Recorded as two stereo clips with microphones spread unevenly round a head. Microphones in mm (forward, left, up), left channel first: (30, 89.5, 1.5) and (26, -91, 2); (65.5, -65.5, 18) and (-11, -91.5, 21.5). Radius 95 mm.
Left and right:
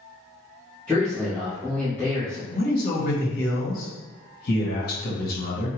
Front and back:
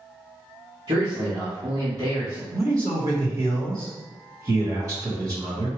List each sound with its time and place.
0.9 s a man speaking: 170° left, 1.4 m
2.5 s a man speaking: 130° left, 1.4 m